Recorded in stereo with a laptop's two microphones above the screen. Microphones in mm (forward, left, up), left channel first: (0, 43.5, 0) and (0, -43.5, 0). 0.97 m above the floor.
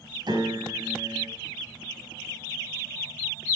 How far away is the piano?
About 4.5 m.